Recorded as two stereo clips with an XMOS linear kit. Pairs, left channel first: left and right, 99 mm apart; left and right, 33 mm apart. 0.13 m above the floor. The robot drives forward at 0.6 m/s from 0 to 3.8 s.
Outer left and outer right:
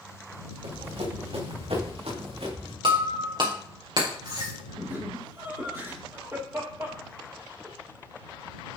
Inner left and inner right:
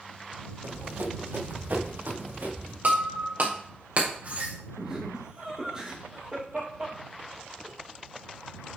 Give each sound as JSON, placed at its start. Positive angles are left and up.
{"t": 0.6, "sound": "running footsteps", "side_deg": -80, "distance_m": 3.0}
{"t": 2.8, "sound": "breaking glass", "side_deg": -60, "distance_m": 4.0}
{"t": 4.8, "sound": "laughter", "side_deg": -30, "distance_m": 4.0}